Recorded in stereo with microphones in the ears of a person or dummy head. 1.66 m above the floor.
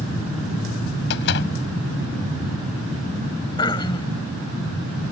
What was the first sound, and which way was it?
A door slam, 65° left (ahead or behind).